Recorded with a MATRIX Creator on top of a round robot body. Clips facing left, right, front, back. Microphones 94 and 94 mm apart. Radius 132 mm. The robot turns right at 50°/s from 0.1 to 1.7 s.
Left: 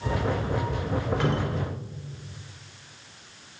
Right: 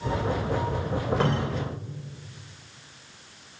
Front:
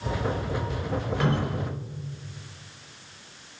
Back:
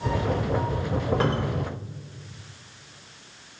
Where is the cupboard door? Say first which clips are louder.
Right 1 dB, back 1 dB; 135° right, 1.5 m; by 1.6 s 110° right, 1.5 m.